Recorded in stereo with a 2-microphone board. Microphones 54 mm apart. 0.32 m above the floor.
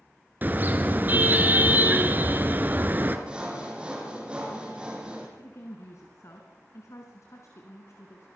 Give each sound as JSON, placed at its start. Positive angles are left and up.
{"t": 0.4, "sound": "a car horn", "side_deg": -35, "distance_m": 2.5}
{"t": 3.3, "sound": "sawing", "side_deg": -15, "distance_m": 6.0}
{"t": 5.4, "sound": "a woman speaking", "side_deg": 60, "distance_m": 3.5}